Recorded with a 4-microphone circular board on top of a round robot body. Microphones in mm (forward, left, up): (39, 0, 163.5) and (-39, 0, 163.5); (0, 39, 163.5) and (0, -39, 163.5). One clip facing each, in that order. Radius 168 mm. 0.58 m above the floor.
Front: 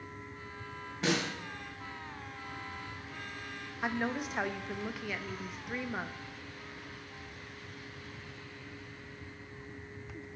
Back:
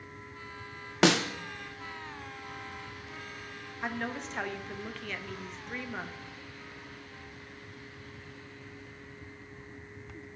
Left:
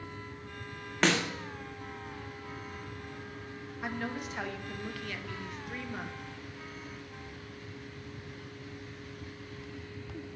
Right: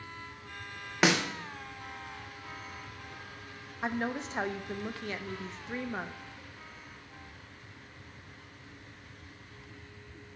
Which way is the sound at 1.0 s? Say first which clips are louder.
Back 7 dB, right 1 dB; 170° right.